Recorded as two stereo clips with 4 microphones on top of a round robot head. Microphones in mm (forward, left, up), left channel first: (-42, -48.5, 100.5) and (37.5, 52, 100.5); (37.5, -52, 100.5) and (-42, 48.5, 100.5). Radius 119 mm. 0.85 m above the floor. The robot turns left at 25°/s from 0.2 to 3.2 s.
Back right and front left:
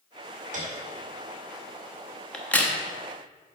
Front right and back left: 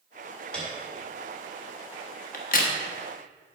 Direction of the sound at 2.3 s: 45° right.